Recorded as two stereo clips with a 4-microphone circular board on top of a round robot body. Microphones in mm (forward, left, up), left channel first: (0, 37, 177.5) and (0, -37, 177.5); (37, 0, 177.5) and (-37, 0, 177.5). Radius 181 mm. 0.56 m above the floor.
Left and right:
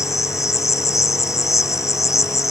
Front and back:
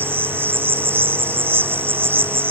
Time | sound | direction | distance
0.0 | an insect | 125° left | ?